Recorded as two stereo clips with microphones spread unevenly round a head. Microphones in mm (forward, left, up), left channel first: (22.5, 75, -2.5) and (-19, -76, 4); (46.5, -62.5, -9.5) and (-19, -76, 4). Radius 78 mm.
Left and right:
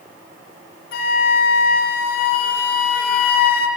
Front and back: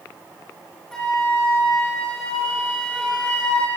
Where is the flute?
100° left, 3 m.